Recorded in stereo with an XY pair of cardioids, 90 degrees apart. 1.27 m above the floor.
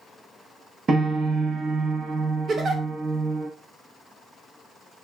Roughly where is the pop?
No pop in this recording.